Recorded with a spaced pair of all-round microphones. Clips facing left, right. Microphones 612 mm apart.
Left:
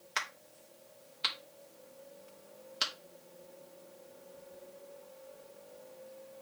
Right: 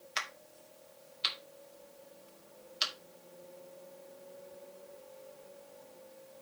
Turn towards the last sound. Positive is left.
turn(degrees=70)  # may be behind; listen again after turning